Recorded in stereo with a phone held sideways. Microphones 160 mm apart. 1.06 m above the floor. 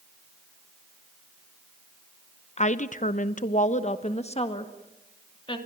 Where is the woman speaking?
45° left (ahead or behind), 0.8 m; by 5.6 s 30° left (ahead or behind), 2.5 m.